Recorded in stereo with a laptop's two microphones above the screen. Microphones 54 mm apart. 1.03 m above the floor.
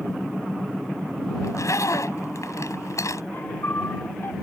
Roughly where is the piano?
Left.